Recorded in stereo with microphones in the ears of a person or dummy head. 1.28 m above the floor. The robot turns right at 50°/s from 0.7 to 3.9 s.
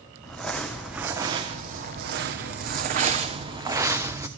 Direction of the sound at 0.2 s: 175° left.